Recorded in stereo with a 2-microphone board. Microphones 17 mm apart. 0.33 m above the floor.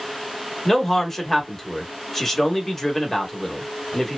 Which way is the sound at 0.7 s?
15° left (ahead or behind).